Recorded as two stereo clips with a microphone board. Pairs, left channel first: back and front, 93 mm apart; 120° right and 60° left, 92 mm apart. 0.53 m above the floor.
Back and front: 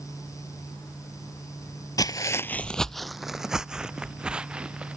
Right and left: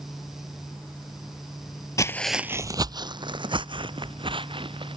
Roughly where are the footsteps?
Behind right.